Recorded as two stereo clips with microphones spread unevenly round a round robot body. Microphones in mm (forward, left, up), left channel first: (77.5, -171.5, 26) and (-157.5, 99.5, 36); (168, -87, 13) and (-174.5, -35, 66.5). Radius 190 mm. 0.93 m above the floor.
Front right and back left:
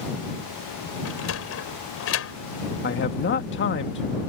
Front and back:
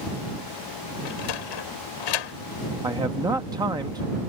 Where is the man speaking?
105° right.